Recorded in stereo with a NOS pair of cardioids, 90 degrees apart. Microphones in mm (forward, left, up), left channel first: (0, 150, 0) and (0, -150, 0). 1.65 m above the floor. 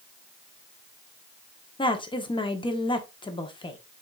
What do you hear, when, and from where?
1.8 s a woman speaking: 15° left, 1.1 m